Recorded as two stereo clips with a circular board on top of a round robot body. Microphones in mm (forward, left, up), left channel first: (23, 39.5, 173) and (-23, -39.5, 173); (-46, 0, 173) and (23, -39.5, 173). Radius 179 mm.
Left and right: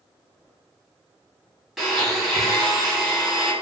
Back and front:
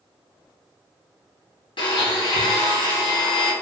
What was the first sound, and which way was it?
A blender, 150° left.